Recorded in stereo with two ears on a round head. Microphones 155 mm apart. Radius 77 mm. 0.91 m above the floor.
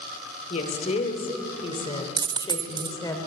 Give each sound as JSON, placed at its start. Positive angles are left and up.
{"t": 0.5, "sound": "a woman speaking", "side_deg": 40, "distance_m": 3.5}
{"t": 2.2, "sound": "a dropped coin", "side_deg": -25, "distance_m": 0.5}